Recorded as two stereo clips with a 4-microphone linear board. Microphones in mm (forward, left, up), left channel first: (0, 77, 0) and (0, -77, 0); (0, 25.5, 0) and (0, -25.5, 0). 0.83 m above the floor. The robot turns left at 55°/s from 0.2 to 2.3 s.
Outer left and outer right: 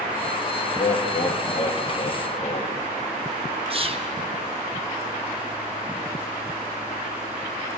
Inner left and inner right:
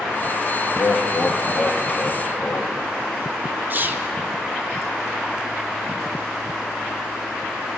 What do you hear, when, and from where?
0.7 s laughter: 140° left, 1.1 m; by 2.8 s 55° left, 1.1 m
3.7 s whispering: 40° right (ahead or behind), 0.7 m